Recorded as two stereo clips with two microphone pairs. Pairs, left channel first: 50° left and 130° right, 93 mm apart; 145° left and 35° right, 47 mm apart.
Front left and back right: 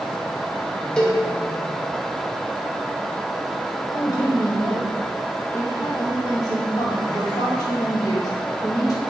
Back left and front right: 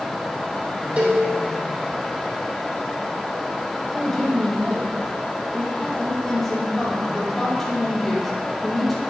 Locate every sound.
1.0 s a cowbell: 25° right, 1.3 m
3.9 s a woman speaking: 65° left, 1.9 m